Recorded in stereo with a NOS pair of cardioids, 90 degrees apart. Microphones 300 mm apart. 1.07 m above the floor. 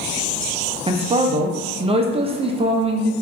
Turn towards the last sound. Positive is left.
turn(degrees=-20)